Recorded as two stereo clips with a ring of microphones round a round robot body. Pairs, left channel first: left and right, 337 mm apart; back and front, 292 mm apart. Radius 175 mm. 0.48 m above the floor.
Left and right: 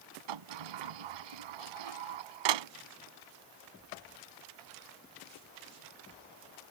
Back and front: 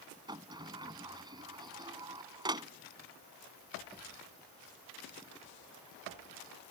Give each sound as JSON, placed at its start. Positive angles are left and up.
{"t": 0.3, "sound": "a sliding door", "azimuth_deg": -80}